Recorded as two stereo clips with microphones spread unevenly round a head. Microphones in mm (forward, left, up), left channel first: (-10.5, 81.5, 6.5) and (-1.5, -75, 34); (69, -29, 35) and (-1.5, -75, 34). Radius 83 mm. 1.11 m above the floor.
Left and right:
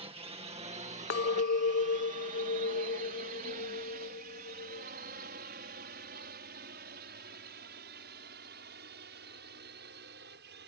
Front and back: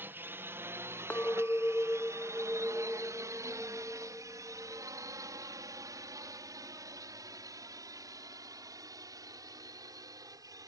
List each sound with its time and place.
0.0 s a drone: 115° right; by 10.7 s 105° right
1.1 s a clink: 110° left